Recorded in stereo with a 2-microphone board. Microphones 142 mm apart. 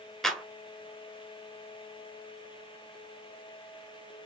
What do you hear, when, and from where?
0.2 s a clap: centre (ahead or behind), 1.1 m